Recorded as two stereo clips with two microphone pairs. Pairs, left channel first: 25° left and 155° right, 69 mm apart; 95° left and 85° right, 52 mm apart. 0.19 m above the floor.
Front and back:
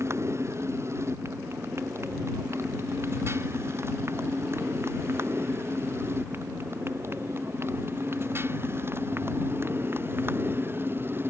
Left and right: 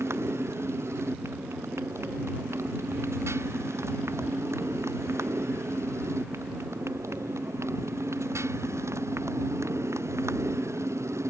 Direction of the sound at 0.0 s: 110° right.